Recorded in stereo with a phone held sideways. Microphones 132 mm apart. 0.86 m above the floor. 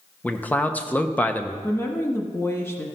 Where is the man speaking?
10° left (ahead or behind), 0.7 m.